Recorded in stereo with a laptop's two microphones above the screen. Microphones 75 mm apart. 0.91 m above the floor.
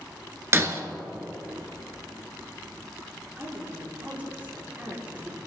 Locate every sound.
0.5 s breaking glass: 35° right (ahead or behind), 1.0 m
3.4 s a woman speaking: 20° right (ahead or behind), 3 m